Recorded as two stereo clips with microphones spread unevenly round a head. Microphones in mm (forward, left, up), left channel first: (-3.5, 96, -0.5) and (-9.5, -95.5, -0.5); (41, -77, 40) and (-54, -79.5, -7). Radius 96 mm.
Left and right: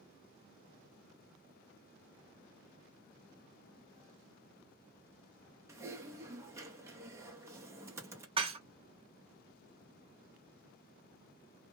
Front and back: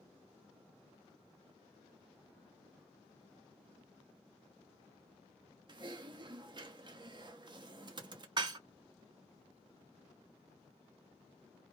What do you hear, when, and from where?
5.7 s typing on a keyboard: 165° right, 0.7 m
8.4 s dishes clattering: 125° right, 0.5 m